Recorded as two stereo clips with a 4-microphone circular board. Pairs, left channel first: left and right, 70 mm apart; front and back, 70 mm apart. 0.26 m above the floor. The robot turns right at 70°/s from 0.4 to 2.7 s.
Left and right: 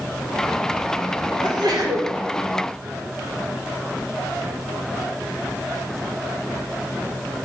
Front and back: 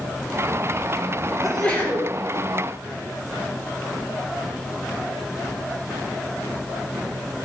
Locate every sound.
1.4 s a sneeze: 85° right, 3 m; by 2.1 s 40° right, 3 m